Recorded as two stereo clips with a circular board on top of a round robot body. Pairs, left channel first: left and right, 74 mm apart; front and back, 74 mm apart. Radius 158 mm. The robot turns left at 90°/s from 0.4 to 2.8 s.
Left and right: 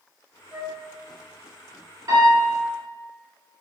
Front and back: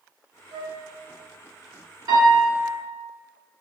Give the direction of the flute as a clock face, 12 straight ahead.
5 o'clock.